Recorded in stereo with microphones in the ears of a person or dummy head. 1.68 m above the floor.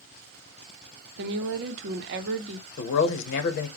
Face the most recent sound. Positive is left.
turn(degrees=60)  # may be behind; listen again after turning